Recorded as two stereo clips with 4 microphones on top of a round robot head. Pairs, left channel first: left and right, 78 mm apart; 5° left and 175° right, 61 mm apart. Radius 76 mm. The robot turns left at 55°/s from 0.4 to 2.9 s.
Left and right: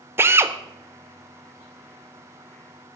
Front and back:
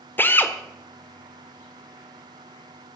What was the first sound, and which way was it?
A drill, 40° right.